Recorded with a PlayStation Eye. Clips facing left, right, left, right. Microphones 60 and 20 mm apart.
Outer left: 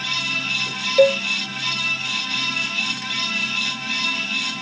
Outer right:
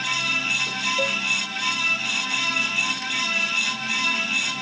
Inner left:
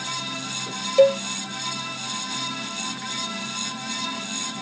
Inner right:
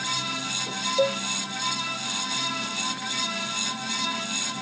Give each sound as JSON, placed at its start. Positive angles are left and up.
{"t": 1.0, "sound": "a cowbell", "side_deg": 60}